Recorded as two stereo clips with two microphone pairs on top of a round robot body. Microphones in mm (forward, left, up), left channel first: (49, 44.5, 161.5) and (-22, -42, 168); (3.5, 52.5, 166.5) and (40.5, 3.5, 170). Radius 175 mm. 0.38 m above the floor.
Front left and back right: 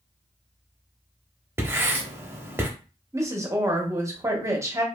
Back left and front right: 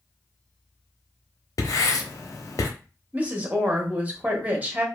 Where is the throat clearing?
No throat clearing in this recording.